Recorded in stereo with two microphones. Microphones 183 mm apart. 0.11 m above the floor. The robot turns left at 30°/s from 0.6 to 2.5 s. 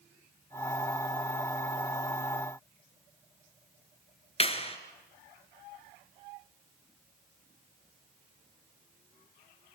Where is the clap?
35° left (ahead or behind), 1.8 m.